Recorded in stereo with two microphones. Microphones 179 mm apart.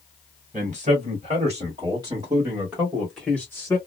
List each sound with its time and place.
0.5 s a man speaking: 40° right (ahead or behind), 1.9 m; by 3.8 s 15° left (ahead or behind), 1.3 m